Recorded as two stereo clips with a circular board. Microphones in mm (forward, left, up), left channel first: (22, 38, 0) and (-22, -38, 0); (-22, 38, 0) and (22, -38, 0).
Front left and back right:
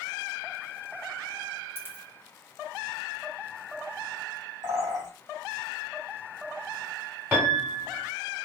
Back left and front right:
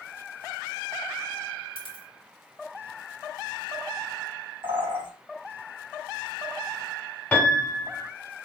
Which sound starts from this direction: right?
A bird, at 4.6 s.